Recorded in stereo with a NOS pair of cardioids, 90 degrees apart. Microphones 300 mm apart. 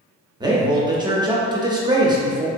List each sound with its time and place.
0.4 s a man speaking: 15° right, 0.7 m